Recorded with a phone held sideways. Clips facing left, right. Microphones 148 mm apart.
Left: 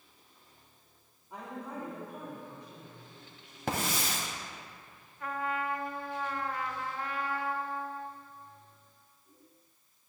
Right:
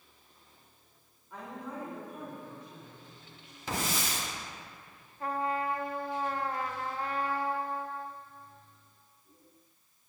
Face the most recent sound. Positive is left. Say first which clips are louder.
# right 3 dB
turn(degrees=-35)  # may be behind; listen again after turning